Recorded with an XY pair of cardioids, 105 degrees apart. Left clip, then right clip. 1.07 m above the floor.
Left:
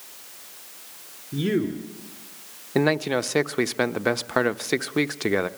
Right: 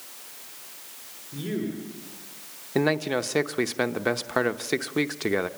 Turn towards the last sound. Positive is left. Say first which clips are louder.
# left 2 dB
turn(degrees=20)